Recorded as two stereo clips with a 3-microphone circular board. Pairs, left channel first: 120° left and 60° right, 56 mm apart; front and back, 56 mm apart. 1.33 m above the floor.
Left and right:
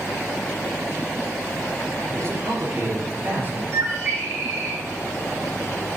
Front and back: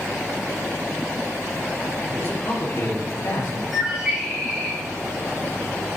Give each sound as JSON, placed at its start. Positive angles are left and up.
{"t": 2.1, "sound": "a man speaking", "azimuth_deg": -40, "distance_m": 3.5}
{"t": 3.7, "sound": "a bird", "azimuth_deg": -95, "distance_m": 3.0}